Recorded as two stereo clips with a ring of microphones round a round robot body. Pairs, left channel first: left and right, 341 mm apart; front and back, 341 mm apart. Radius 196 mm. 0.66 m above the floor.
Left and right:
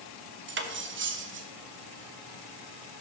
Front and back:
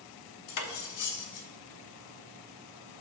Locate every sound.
0.5 s cutlery clinking: 35° right, 0.7 m